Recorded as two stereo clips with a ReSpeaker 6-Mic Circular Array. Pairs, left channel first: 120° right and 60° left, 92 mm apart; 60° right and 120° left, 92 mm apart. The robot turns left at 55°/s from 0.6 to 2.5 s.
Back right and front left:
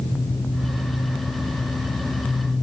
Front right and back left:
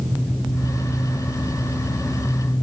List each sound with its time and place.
Only background noise.